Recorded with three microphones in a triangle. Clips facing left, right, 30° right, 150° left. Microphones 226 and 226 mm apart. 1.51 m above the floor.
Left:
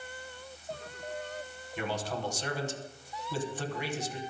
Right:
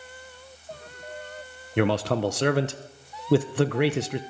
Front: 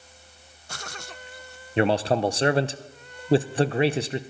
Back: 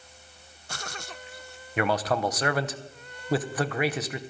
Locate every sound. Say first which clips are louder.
1.8 s a man speaking: right 12 dB, front 4 dB; 95° right, 0.8 m